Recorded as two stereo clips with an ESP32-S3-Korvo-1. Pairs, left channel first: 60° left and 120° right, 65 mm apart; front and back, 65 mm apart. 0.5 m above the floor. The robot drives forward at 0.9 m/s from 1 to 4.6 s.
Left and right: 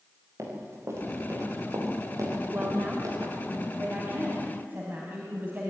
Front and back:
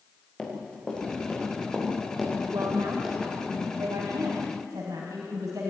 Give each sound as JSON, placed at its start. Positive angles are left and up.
{"t": 0.4, "sound": "running footsteps", "azimuth_deg": -80, "distance_m": 7.0}
{"t": 2.5, "sound": "a woman speaking", "azimuth_deg": -175, "distance_m": 2.0}